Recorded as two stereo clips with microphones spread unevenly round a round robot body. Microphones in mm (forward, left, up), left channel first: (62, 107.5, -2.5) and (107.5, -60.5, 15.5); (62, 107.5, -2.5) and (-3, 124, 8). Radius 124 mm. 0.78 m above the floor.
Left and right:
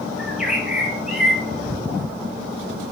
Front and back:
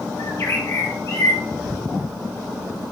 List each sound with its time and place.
0.2 s a bird: 15° left, 2.5 m
1.6 s tearing paper: 5° right, 3 m